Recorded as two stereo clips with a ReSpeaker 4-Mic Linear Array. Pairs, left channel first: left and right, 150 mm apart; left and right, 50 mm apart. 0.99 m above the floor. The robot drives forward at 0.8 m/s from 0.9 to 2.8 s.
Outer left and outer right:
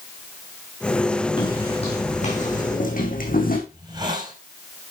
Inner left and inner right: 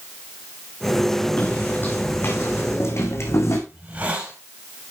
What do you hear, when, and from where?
1.4 s footsteps: 35° left (ahead or behind), 3.5 m; by 3.6 s 70° left (ahead or behind), 3.5 m
3.7 s a hiss: 30° right (ahead or behind), 4.5 m